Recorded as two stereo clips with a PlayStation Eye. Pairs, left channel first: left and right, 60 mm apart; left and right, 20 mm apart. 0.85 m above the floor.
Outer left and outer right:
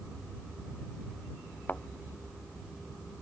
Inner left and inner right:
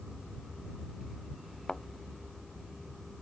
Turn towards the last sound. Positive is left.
turn(degrees=25)  # may be behind; listen again after turning